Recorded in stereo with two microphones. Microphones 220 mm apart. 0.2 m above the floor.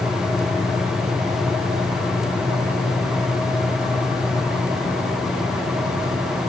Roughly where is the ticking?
I don't hear ticking.